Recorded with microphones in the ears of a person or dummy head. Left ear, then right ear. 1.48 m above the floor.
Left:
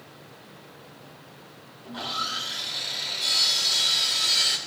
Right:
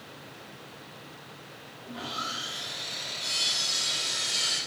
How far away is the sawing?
About 4 m.